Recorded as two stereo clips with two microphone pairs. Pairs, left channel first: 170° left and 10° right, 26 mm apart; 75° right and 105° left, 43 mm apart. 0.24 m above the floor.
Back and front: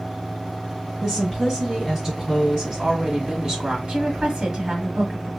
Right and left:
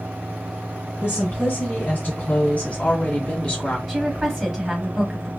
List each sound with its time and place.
1.0 s a woman speaking: 100° right, 1.9 m; by 3.8 s 30° right, 1.2 m
3.9 s a woman speaking: 30° left, 1.3 m